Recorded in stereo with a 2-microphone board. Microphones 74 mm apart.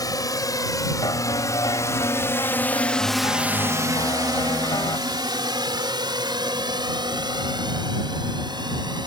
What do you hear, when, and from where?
0.0 s a drone: 55° left (ahead or behind); by 9.1 s 75° right (ahead or behind)
1.0 s a piano: 70° left (ahead or behind)